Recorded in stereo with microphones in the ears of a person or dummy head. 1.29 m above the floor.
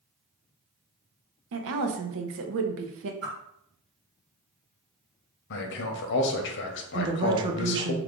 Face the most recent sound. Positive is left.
turn(degrees=-25)  # may be behind; listen again after turning